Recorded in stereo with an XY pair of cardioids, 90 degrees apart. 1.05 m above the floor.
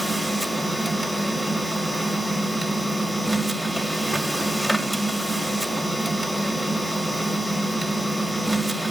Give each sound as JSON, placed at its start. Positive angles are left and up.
{"t": 0.0, "sound": "a machine running", "azimuth_deg": -5, "distance_m": 1.9}